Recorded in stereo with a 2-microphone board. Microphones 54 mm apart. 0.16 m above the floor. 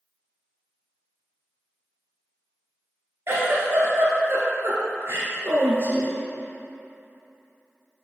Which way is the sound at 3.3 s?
55° right (ahead or behind).